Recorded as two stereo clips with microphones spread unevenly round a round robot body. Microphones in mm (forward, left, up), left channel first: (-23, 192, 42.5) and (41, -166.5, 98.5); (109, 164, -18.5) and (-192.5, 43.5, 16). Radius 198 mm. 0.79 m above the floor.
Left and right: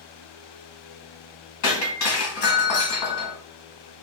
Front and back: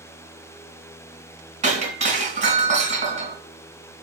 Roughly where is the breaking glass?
Behind left.